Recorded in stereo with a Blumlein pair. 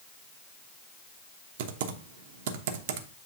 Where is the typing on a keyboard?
55° right, 0.9 m.